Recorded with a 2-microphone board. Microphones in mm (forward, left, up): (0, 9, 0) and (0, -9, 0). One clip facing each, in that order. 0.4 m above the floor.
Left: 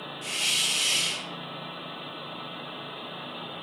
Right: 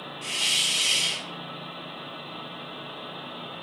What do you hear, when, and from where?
0.2 s a hiss: 15° right (ahead or behind), 2 m